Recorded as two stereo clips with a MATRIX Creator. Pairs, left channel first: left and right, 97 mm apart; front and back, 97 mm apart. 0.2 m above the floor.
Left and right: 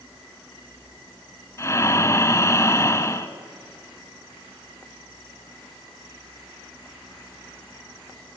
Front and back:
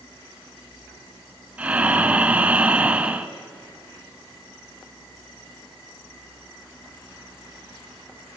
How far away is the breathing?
About 1.2 m.